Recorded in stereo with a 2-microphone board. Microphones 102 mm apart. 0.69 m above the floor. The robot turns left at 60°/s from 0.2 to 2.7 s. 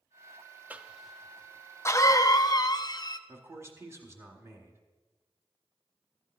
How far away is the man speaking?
About 1.3 m.